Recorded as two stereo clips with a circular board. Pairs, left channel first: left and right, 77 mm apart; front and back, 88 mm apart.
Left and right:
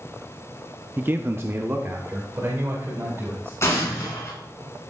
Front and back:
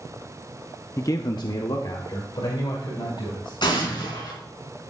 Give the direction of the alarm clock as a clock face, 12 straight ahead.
No alarm clock in this recording.